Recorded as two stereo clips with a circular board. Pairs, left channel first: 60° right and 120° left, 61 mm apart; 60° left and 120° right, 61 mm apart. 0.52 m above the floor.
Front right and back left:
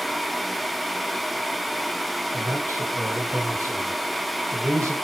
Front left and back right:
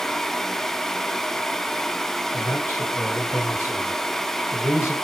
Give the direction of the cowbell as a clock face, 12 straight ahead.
No cowbell in this recording.